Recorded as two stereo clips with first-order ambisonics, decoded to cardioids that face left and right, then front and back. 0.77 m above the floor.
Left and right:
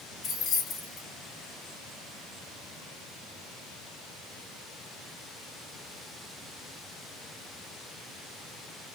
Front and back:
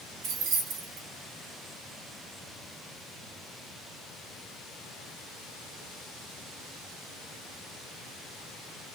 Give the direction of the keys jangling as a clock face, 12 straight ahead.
7 o'clock.